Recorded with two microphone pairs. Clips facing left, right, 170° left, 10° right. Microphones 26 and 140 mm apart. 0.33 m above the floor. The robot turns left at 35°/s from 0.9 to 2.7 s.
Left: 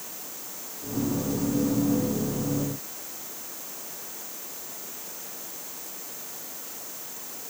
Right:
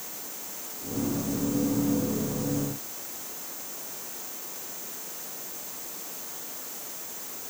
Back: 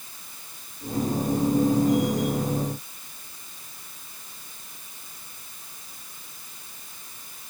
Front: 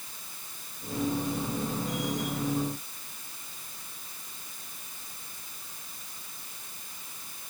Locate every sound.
Only background noise.